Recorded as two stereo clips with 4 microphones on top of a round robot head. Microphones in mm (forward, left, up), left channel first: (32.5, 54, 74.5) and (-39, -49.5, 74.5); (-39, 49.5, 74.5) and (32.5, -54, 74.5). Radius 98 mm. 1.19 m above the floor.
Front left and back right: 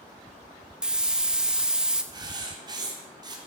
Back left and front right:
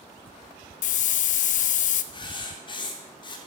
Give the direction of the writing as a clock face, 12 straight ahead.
6 o'clock.